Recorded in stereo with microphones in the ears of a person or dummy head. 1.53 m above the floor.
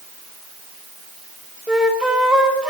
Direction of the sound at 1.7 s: 10° right (ahead or behind).